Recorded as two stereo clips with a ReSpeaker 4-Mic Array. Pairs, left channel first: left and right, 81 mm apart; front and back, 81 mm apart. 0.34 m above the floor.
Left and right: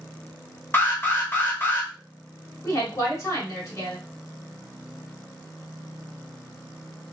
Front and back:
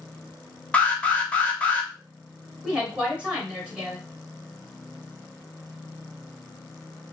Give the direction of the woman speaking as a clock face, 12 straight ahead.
8 o'clock.